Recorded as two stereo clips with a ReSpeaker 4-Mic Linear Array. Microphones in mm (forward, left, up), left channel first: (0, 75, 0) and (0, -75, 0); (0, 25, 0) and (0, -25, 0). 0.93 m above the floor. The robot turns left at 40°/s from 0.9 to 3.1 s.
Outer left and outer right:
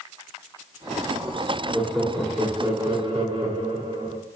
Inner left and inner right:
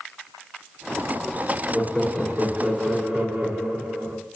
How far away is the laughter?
About 1.7 m.